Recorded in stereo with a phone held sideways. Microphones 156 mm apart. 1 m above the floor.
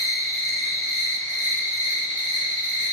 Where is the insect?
50° right (ahead or behind), 0.9 m.